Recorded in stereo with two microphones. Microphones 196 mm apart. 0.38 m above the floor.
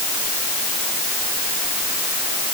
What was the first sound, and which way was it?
Only background noise.